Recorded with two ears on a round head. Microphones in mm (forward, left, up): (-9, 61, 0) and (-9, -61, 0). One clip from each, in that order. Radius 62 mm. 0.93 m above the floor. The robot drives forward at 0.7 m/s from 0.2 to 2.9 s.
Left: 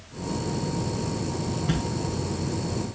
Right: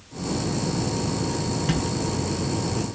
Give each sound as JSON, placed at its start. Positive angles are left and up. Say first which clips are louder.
{"t": 1.7, "sound": "a thud", "louder": "right 3 dB", "side_deg": -55, "distance_m": 3.5}